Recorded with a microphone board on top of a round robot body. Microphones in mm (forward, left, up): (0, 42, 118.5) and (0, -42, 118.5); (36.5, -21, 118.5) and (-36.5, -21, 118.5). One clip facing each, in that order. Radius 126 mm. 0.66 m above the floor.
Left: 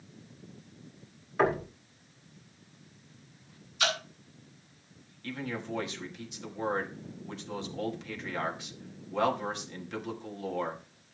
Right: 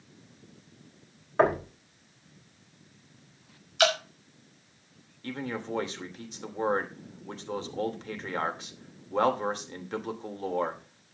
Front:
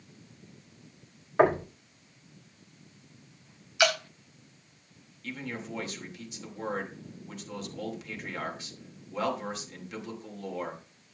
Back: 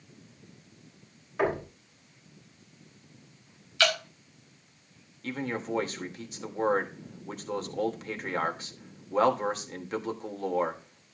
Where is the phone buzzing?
No phone buzzing in this recording.